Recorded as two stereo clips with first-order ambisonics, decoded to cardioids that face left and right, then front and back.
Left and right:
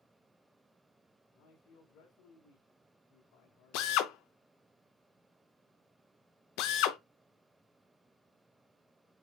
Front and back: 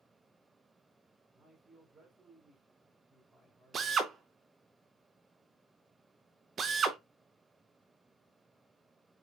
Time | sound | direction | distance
1.3 | a man speaking | 115° left | 1.6 m
3.7 | a drill | 115° left | 0.6 m